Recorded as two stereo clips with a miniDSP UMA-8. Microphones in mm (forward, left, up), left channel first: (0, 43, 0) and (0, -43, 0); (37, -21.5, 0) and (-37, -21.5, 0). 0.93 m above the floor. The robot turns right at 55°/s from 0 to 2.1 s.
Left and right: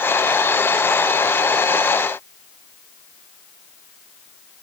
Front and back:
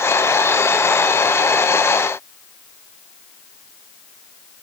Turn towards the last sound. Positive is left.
No sound to turn to.